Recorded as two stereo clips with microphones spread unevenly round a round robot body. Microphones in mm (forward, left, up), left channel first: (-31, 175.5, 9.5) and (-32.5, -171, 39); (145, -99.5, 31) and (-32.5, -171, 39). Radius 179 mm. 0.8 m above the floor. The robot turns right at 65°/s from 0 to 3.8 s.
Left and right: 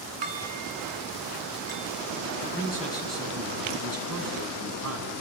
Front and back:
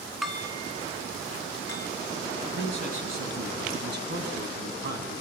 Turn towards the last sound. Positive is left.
turn(degrees=-135)